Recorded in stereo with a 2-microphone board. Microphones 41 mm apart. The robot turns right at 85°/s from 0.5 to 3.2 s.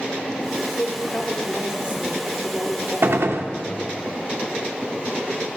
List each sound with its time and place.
0.6 s a woman speaking: 110° left, 1.2 m; by 4.0 s 25° right, 1.2 m
3.0 s a gunshot: 60° right (ahead or behind), 0.5 m; by 3.5 s 70° right (ahead or behind), 0.5 m